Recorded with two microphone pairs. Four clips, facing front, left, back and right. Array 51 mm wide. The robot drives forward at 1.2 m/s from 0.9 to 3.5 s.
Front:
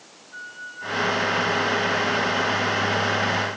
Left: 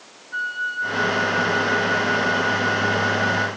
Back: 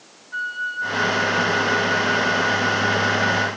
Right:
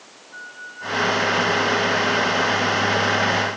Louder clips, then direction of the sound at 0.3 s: Left 12 dB, back 11 dB; 130° left.